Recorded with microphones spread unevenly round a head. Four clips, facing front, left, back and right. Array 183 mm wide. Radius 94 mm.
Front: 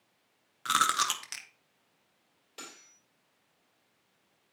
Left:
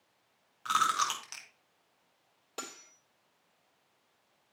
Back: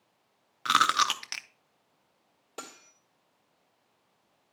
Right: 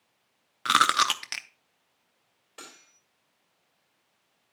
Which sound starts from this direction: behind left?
Cutlery clinking, at 2.6 s.